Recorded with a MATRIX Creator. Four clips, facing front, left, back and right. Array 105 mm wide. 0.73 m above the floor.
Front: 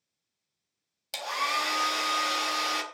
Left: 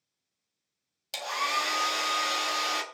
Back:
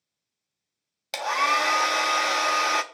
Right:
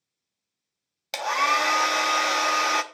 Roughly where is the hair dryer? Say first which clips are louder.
Right 7 dB, back 7 dB; behind right.